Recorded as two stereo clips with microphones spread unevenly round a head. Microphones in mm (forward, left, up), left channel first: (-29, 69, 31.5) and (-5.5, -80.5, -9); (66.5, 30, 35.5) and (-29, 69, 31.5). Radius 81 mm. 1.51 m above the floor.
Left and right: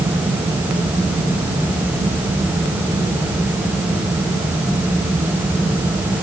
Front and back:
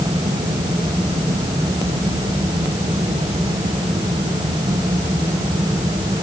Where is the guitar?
No guitar in this recording.